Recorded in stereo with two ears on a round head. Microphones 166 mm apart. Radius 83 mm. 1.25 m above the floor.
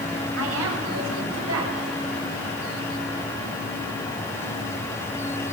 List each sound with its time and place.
0.4 s a woman speaking: 85° right, 7.5 m